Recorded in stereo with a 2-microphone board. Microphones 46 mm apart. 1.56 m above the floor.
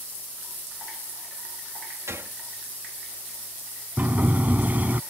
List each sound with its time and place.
2.1 s a gunshot: 85° right
4.0 s a sliding door: 35° right (ahead or behind)